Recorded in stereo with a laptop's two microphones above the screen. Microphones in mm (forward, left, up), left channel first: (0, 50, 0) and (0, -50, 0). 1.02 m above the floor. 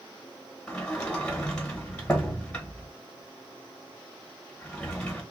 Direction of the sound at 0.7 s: 15° left (ahead or behind).